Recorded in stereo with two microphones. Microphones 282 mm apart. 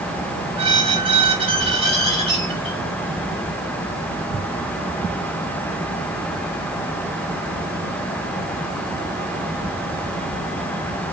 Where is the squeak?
20° right (ahead or behind), 0.8 m.